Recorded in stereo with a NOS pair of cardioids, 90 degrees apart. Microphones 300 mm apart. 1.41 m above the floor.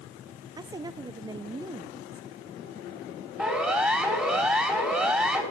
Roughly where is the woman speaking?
Ahead.